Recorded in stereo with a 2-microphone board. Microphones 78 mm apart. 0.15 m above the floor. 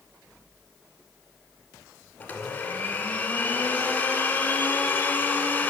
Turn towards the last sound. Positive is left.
turn(degrees=20)  # may be behind; listen again after turning